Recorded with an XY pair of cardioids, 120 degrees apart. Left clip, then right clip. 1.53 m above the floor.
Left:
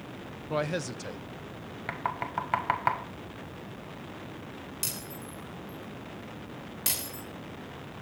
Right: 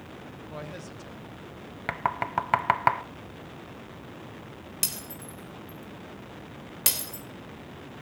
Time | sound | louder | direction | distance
0.5 | a man speaking | left 11 dB | 50° left | 0.5 m
1.9 | knocking | right 4 dB | 35° right | 0.6 m
4.8 | breaking glass | right 4 dB | 45° right | 3.5 m